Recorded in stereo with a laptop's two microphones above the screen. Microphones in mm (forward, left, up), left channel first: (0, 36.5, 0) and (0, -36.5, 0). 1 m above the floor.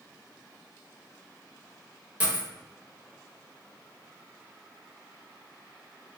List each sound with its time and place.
2.2 s a dropped coin: 20° right (ahead or behind), 0.7 m